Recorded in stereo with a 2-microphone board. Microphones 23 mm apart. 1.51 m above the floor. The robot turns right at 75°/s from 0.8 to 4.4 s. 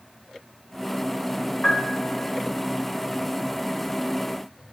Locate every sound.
1.6 s a piano: 110° left, 1.6 m; by 2.2 s 150° left, 1.6 m